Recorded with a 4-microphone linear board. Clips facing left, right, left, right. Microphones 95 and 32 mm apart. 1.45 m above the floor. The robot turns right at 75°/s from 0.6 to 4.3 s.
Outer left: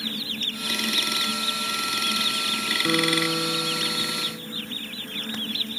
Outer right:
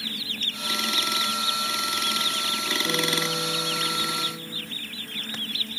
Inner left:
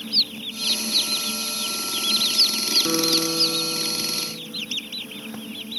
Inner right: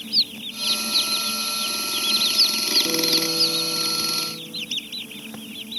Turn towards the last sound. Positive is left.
turn(degrees=-155)